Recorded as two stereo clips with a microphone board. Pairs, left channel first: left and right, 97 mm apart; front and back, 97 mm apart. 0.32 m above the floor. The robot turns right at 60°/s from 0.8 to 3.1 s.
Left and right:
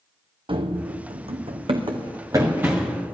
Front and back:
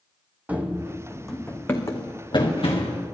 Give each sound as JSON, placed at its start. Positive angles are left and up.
{"t": 0.5, "sound": "running footsteps", "azimuth_deg": -105, "distance_m": 1.1}